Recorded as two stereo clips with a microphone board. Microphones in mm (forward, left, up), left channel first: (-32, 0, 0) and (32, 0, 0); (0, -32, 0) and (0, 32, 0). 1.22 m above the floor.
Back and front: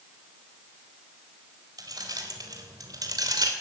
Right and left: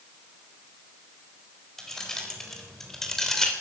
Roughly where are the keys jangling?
Ahead.